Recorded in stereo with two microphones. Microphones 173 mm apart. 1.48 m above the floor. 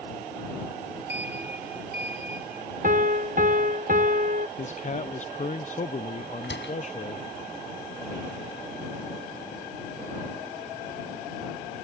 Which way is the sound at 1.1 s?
80° right.